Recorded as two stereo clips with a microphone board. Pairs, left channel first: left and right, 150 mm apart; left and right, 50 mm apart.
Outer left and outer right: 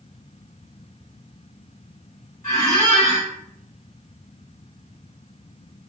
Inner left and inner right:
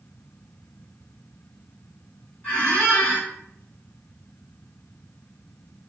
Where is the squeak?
25° left (ahead or behind), 1.6 m.